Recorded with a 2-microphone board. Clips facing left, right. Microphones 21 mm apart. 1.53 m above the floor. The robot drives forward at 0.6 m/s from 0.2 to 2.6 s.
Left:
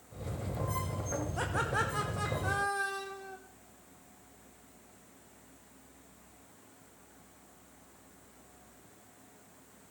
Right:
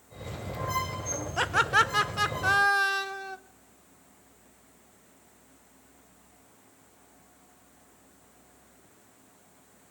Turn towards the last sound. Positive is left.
turn(degrees=-60)  # may be behind; listen again after turning